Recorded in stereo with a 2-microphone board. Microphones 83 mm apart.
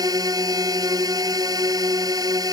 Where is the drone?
50° right (ahead or behind).